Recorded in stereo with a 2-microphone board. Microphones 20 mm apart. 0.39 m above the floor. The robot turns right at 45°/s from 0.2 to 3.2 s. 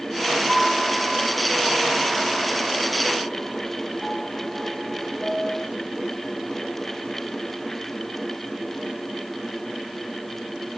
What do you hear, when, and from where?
0.5 s a piano: 30° right (ahead or behind), 5 m